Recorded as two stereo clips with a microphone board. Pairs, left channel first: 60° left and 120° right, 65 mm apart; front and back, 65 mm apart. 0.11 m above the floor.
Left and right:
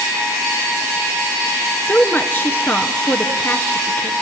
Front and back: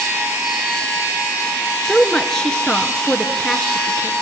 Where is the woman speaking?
75° left, 1.5 m.